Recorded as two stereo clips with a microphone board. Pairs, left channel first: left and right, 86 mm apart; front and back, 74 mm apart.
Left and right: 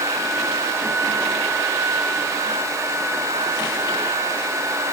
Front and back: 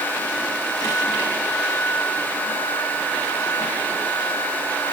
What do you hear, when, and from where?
Only background noise.